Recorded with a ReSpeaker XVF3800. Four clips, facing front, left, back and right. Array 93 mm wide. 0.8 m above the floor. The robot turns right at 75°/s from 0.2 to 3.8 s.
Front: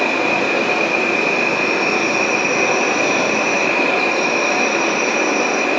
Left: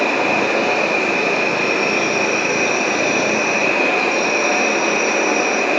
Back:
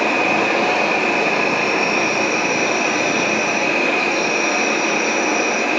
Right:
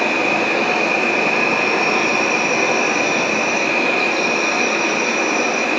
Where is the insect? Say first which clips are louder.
Left 1 dB, even; 140° left, 1.5 m; by 5.8 s 50° left, 1.5 m.